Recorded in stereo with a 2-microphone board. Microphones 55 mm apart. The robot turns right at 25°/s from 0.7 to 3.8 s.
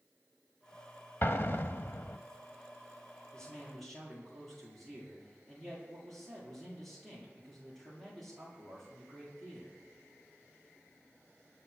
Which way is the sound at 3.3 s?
15° left (ahead or behind).